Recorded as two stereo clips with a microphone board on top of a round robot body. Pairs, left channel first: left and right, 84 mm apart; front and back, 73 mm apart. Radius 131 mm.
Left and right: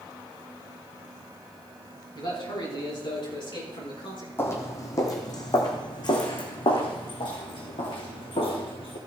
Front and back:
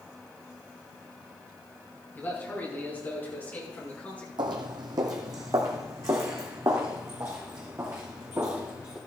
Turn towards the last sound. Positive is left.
turn(degrees=115)